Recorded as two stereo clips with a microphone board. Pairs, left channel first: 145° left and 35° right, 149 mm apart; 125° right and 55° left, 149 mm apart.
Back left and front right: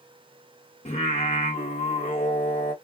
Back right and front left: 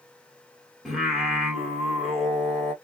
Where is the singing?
145° left, 1.7 m.